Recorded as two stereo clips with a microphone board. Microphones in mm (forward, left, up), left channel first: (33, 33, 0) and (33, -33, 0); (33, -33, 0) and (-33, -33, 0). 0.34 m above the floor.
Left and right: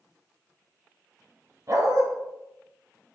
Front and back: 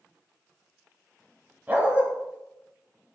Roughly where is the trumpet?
No trumpet in this recording.